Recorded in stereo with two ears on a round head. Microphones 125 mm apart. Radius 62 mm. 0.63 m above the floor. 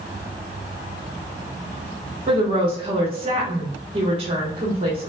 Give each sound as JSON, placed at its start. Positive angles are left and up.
{"t": 2.3, "sound": "a woman speaking", "side_deg": -45, "distance_m": 1.1}